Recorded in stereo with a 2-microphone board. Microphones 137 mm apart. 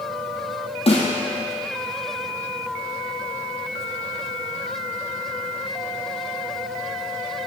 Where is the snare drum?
45° left (ahead or behind), 2 m.